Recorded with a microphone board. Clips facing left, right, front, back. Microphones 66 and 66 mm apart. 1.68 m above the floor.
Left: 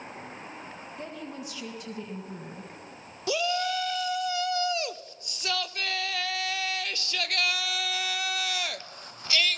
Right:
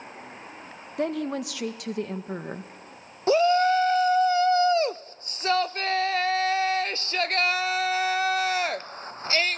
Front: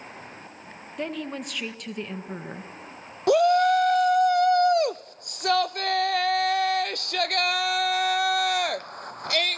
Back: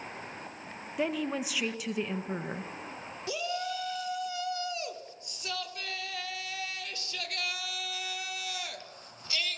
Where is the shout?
35° right, 0.6 m.